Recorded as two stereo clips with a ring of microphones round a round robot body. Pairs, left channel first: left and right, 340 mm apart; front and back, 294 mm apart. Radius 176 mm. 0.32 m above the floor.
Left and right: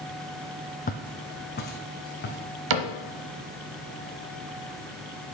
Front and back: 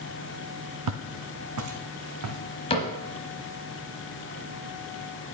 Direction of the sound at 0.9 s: 155° left.